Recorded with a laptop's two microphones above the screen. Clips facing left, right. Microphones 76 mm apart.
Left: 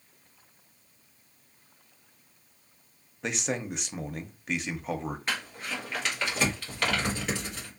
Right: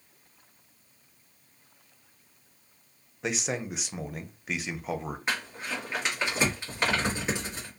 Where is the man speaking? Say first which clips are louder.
Even; 5° right (ahead or behind), 0.5 m.